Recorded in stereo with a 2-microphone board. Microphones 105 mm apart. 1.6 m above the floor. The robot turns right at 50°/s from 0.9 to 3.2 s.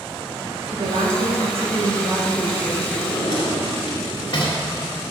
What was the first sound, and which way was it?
A woman speaking, 105° right.